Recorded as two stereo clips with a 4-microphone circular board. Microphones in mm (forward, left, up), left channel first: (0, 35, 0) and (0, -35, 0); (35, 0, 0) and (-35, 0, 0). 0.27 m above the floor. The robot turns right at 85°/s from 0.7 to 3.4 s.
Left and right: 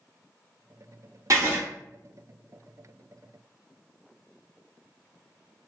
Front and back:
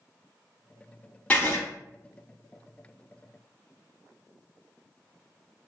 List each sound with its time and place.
1.3 s writing: 70° right, 1.0 m; by 1.6 s 40° right, 1.0 m